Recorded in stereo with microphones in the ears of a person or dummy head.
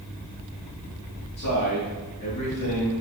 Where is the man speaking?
45° left (ahead or behind), 2.0 m.